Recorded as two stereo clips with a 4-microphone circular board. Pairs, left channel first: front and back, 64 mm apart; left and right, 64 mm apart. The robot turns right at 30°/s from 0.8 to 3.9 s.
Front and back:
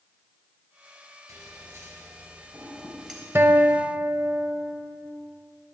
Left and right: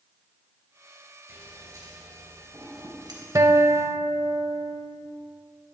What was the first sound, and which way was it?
Scissors, 150° right.